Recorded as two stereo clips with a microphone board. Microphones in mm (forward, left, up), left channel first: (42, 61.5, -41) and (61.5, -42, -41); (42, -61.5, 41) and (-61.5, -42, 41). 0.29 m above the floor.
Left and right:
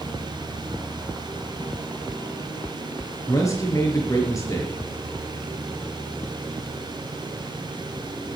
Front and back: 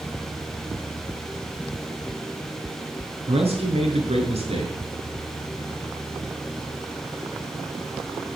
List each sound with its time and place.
3.3 s a man speaking: 160° left, 5.5 m